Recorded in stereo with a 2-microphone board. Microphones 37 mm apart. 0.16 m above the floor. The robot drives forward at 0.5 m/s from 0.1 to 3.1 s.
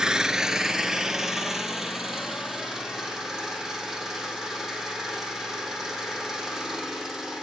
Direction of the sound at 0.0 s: 15° right (ahead or behind).